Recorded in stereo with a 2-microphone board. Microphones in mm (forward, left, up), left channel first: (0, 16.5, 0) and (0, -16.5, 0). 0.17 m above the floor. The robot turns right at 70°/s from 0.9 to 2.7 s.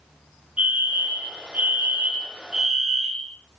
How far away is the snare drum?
No snare drum in this recording.